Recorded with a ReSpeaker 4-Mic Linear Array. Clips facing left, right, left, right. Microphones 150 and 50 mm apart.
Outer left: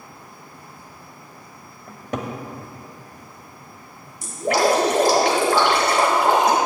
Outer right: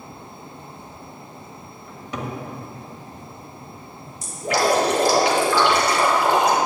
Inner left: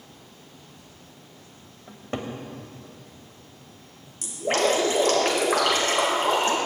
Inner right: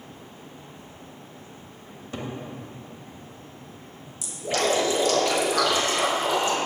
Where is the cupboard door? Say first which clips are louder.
Outer left 2 dB, inner left 3 dB; 50° left (ahead or behind), 1.2 m.